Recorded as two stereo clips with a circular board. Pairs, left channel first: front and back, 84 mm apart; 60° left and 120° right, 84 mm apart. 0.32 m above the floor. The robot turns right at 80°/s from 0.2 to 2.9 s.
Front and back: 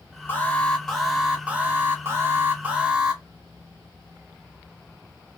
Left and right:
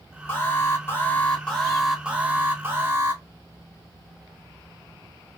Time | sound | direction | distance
0.3 | an alarm | 35° left | 0.8 m